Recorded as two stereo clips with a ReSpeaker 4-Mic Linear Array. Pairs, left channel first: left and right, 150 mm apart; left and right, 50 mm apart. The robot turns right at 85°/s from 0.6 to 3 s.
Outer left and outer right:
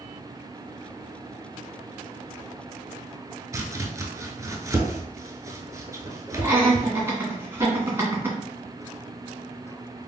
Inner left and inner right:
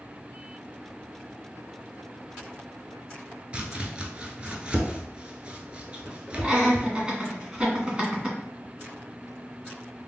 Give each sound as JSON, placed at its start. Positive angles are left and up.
{"t": 3.5, "sound": "chopping", "side_deg": -20, "distance_m": 0.6}
{"t": 6.4, "sound": "laughter", "side_deg": -15, "distance_m": 1.9}